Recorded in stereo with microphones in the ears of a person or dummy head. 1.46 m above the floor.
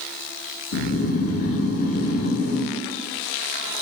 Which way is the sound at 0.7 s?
45° left (ahead or behind).